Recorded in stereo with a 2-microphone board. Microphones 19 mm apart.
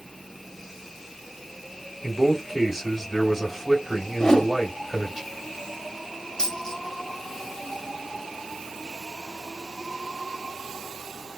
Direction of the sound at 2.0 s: 5° right (ahead or behind).